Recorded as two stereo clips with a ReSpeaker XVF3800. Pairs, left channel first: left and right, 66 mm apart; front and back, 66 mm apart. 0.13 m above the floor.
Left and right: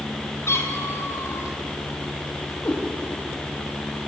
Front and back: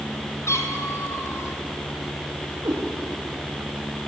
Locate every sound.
0.5 s a cat meowing: 45° left, 2 m
2.6 s a cat meowing: 150° left, 7 m